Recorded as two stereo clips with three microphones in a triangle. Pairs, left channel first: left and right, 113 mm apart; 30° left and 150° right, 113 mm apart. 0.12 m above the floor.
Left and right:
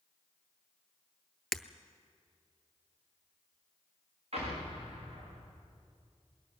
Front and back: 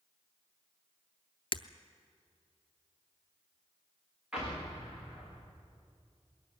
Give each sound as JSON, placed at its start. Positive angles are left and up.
{"t": 1.5, "sound": "breaking glass", "azimuth_deg": 0, "distance_m": 0.6}
{"t": 4.3, "sound": "an explosion", "azimuth_deg": -65, "distance_m": 6.0}